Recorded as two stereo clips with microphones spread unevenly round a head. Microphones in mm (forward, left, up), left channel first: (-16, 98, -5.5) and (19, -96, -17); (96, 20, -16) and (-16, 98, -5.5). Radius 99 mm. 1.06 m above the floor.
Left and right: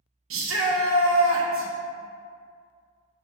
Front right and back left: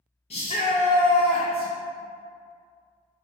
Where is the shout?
95° right, 0.7 m.